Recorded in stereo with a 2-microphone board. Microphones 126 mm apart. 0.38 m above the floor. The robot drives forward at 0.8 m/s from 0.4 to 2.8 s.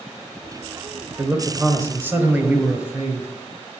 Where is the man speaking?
25° right (ahead or behind), 1.0 m; by 3.3 s 15° right (ahead or behind), 1.9 m.